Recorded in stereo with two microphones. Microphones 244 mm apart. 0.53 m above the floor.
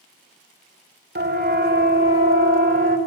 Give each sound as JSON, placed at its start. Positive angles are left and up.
{"t": 1.1, "sound": "a siren", "side_deg": -45, "distance_m": 2.5}